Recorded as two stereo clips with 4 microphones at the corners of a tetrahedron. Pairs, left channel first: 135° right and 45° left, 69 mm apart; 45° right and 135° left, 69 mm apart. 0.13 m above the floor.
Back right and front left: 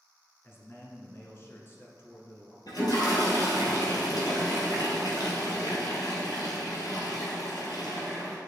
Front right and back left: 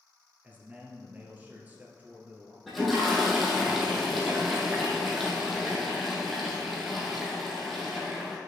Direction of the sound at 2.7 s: 135° right.